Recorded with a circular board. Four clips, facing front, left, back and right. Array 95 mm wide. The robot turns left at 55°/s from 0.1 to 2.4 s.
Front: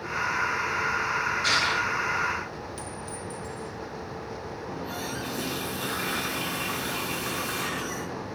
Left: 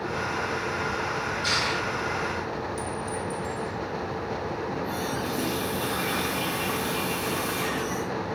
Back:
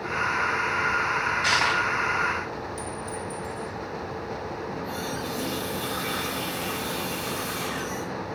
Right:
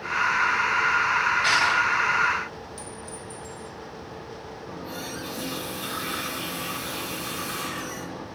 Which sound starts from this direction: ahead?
A clink, at 2.8 s.